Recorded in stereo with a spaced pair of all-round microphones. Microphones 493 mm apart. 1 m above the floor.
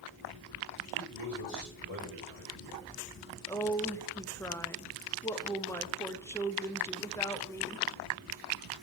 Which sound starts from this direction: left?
A man speaking, at 0.9 s.